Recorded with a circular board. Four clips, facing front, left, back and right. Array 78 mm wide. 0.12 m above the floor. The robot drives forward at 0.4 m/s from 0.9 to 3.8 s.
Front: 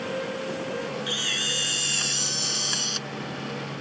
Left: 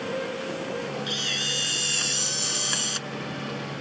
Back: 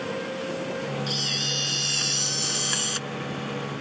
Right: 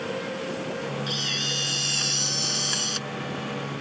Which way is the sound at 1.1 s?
15° left.